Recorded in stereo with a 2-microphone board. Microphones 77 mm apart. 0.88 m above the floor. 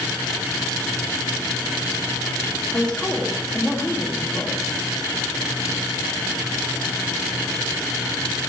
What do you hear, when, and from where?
2.7 s a woman speaking: 10° left (ahead or behind), 1.8 m